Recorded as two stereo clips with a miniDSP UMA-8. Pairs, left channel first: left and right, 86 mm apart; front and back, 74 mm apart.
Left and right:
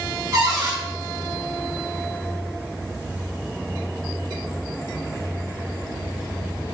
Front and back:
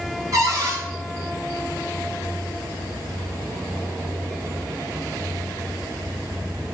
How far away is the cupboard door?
About 3.5 m.